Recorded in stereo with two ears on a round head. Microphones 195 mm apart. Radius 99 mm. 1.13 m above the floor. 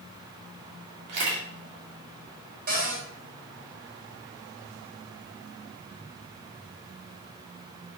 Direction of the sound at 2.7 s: 45° right (ahead or behind).